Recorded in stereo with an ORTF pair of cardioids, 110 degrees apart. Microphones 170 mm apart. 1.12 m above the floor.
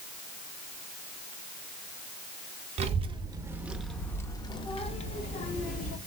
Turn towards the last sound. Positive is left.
turn(degrees=55)